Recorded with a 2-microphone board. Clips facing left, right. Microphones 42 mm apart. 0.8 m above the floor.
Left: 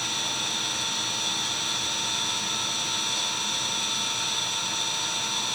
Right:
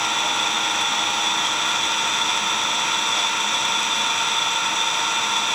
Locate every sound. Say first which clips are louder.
0.0 s an engine running: right 9 dB; 65° right (ahead or behind), 1.6 m